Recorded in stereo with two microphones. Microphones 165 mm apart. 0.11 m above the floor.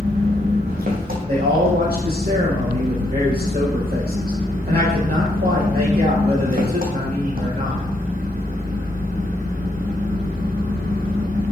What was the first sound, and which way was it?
An engine running, 65° right (ahead or behind).